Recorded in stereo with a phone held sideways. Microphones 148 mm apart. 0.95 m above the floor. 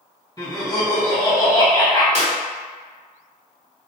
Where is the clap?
50° right (ahead or behind), 1.1 m.